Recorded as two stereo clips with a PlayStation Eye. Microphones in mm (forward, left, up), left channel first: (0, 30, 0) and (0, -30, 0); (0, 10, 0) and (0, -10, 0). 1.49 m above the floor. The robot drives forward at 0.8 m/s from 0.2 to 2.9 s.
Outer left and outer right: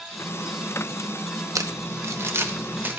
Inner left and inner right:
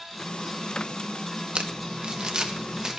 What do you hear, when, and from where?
1.6 s crumpling: 65° right (ahead or behind), 1.2 m; by 3.0 s 35° right (ahead or behind), 1.9 m